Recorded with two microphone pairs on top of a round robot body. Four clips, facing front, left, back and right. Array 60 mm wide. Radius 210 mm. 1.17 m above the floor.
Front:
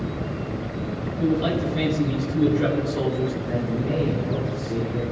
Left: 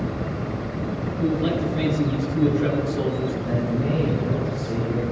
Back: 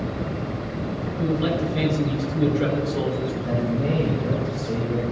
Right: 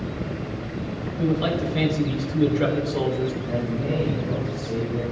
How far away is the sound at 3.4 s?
About 8 m.